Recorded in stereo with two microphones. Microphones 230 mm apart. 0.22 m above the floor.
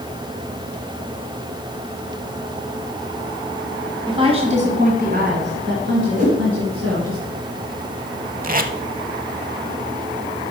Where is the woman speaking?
20° right (ahead or behind), 1.7 m; by 7.2 s 65° right (ahead or behind), 2.5 m.